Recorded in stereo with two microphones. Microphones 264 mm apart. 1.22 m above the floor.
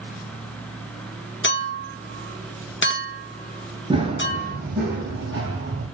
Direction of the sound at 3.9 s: 20° right (ahead or behind).